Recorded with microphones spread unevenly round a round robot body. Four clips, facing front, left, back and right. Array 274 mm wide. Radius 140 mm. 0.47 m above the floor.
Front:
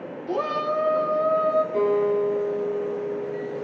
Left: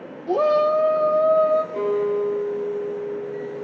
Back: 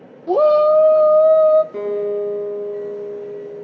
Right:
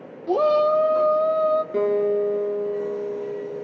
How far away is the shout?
About 1.0 m.